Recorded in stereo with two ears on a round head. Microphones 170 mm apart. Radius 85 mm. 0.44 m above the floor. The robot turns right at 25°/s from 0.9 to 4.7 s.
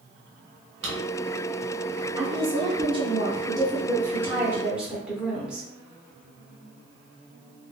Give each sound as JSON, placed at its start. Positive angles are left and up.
{"t": 0.8, "sound": "a drawer", "side_deg": -70, "distance_m": 1.2}
{"t": 2.1, "sound": "a woman speaking", "azimuth_deg": -75, "distance_m": 0.8}